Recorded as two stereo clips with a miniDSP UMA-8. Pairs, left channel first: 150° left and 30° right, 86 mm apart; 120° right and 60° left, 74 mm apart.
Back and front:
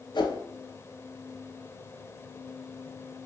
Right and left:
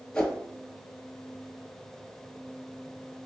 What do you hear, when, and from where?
0.1 s a whoosh: 160° left, 0.6 m